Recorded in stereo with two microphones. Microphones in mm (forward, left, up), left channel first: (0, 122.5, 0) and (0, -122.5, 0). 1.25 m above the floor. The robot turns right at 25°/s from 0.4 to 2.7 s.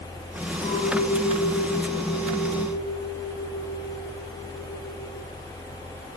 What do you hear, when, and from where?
0.6 s a clink: 145° left, 4.5 m; by 5.3 s 160° right, 4.5 m